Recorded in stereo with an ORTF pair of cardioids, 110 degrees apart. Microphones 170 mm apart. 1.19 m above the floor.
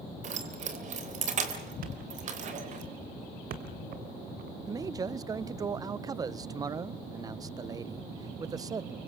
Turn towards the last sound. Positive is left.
turn(degrees=-20)